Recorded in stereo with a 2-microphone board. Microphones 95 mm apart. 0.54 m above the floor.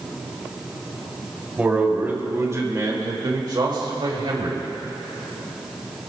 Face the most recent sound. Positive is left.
turn(degrees=-65)  # may be behind; listen again after turning